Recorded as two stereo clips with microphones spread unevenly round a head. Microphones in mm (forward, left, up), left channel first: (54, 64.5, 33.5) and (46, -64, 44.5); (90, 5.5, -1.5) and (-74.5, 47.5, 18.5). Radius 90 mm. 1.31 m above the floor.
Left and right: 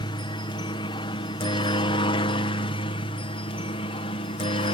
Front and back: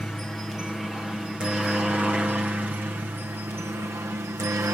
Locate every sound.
0.0 s a helicopter: 70° left; by 4.7 s 95° left